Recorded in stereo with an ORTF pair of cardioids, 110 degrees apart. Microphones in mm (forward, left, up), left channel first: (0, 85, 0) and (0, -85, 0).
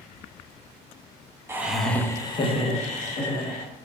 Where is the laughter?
15° right, 0.7 m; by 3.7 s 55° left, 1.3 m.